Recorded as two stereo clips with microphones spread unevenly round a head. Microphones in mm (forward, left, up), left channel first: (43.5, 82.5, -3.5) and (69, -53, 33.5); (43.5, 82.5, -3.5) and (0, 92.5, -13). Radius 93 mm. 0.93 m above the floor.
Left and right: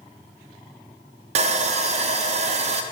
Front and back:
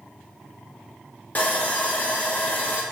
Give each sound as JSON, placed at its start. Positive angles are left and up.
{"t": 1.4, "sound": "sawing", "azimuth_deg": -65, "distance_m": 0.7}